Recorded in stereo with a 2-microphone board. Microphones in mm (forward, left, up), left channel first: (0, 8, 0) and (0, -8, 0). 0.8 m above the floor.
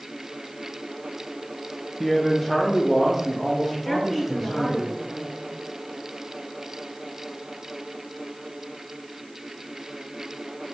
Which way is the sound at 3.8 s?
15° left (ahead or behind).